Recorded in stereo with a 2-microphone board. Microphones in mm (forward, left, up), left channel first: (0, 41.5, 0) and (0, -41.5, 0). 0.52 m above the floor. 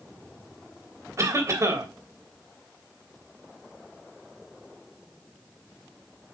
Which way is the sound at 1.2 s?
40° right (ahead or behind).